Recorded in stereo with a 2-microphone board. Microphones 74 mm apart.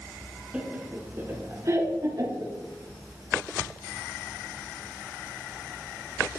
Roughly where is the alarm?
I don't hear an alarm.